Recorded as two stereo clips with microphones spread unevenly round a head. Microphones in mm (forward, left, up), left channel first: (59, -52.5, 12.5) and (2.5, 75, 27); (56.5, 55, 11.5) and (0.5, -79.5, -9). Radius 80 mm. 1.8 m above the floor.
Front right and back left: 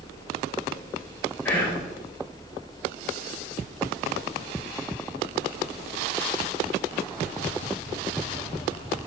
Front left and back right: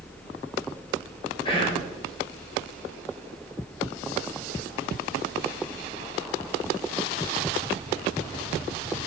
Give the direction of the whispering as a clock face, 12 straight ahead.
12 o'clock.